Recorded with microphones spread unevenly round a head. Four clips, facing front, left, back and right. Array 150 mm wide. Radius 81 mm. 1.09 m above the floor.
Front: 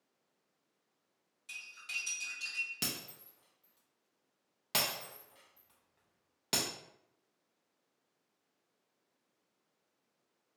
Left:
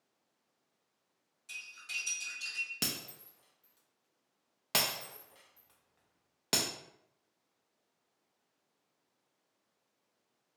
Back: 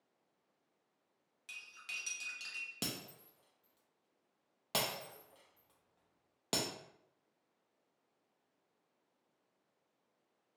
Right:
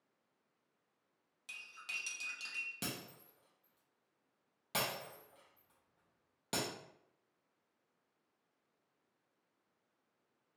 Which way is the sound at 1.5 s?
105° right.